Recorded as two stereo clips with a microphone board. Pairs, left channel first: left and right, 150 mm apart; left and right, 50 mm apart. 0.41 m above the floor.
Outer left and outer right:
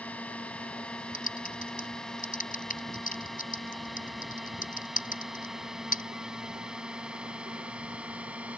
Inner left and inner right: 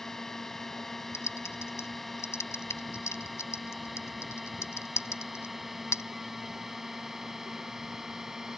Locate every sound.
0.0 s a drone: 10° left (ahead or behind); by 8.6 s 10° right (ahead or behind)
1.1 s typing on a keyboard: 70° left (ahead or behind)